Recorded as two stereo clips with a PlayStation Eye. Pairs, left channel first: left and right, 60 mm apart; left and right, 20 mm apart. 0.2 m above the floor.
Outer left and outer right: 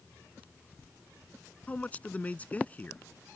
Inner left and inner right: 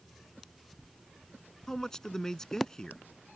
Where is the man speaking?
25° left (ahead or behind).